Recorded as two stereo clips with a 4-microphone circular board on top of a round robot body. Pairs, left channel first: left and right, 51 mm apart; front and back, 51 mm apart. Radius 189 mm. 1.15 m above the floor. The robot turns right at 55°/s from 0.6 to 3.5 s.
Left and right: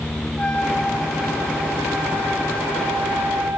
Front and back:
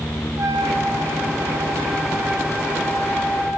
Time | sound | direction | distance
0.4 | a trumpet | 160° left | 1.9 m